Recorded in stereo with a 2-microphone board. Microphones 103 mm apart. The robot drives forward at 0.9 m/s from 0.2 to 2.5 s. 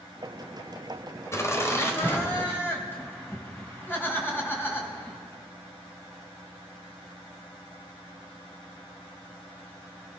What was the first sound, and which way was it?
Laughter, 30° left (ahead or behind).